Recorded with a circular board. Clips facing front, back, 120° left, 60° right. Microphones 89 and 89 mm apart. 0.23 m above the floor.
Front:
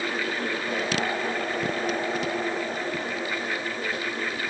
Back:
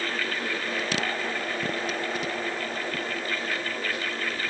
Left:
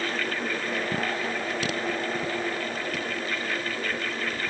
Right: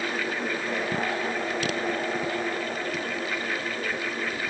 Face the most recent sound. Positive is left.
No sound to turn to.